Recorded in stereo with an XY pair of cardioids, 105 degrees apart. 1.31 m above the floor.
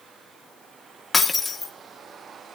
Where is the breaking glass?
15° left, 1.8 m.